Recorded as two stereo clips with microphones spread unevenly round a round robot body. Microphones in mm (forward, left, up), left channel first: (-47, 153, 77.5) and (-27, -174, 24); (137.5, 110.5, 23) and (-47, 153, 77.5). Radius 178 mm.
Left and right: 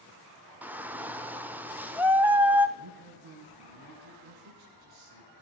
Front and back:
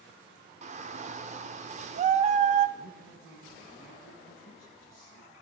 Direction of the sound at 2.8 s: 80° right.